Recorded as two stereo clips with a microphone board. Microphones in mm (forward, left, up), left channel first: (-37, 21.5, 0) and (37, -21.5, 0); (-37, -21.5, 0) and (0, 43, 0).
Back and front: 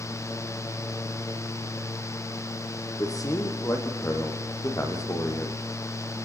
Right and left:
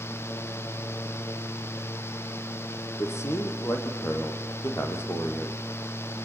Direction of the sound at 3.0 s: 165° right.